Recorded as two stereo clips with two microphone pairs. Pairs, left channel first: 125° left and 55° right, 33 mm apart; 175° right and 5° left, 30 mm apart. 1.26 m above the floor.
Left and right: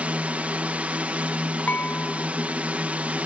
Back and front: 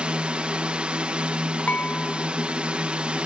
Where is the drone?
35° right.